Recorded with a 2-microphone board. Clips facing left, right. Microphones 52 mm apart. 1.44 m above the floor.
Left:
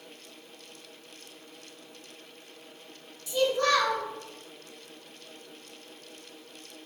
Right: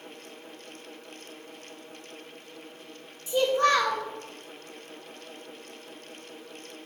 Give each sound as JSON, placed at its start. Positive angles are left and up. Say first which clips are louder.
{"t": 3.3, "sound": "a child speaking", "louder": "right 2 dB", "side_deg": -30, "distance_m": 1.3}